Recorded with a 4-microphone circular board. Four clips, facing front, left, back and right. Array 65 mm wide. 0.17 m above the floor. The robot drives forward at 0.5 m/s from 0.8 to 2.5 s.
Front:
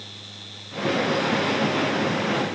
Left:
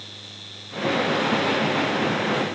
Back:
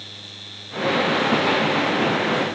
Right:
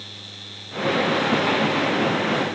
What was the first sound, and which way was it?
Only background noise.